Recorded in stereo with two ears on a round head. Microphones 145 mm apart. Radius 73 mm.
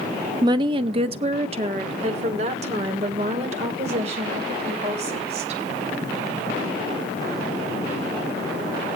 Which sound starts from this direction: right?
A woman speaking, at 0.4 s.